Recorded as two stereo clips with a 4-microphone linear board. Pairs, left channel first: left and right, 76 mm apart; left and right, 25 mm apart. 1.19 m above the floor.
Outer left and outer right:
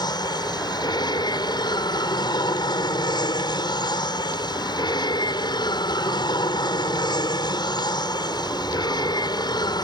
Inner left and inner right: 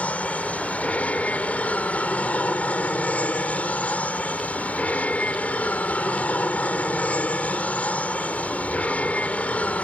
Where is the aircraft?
70° left (ahead or behind).